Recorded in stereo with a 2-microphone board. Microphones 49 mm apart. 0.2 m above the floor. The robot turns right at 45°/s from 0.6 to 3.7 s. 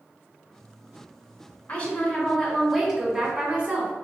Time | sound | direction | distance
1.7 | a woman speaking | 135° left | 1.8 m